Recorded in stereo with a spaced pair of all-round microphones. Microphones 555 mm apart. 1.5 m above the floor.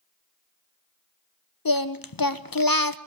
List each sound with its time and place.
1.6 s singing: 40° left (ahead or behind), 0.9 m